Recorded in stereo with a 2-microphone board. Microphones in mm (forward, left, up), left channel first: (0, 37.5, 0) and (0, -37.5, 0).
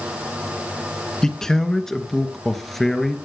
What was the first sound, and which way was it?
A man speaking, 10° left (ahead or behind).